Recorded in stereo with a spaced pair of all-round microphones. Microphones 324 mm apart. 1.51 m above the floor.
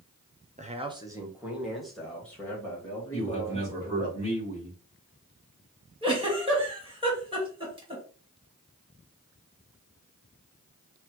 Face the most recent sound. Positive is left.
turn(degrees=-15)  # may be behind; listen again after turning